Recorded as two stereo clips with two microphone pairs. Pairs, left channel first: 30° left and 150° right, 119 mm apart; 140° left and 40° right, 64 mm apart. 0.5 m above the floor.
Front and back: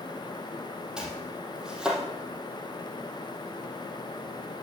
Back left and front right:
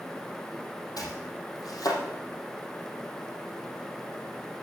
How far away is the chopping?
About 4 m.